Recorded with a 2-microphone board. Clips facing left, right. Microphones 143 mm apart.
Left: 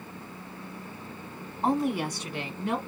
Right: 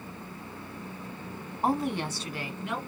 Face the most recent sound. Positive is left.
turn(degrees=35)  # may be behind; listen again after turning